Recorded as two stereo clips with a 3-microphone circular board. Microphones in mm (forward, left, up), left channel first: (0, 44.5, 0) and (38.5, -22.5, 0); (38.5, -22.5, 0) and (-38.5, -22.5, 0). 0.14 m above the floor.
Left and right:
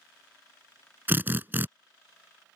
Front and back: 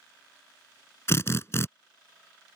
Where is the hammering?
I don't hear hammering.